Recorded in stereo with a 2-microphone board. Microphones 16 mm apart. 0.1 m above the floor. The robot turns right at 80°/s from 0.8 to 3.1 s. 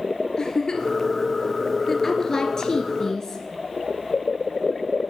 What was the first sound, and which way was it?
A giggle, 35° left (ahead or behind).